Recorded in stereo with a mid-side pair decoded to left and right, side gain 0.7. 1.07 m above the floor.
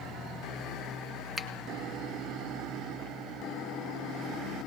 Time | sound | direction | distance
1.4 | a finger snap | straight ahead | 1.0 m